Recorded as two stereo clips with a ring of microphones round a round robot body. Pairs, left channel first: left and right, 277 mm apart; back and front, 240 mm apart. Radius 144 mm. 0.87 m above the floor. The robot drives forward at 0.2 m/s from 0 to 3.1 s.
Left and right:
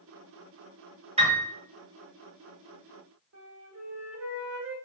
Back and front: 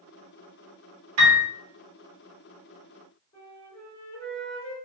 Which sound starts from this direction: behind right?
A flute, at 3.3 s.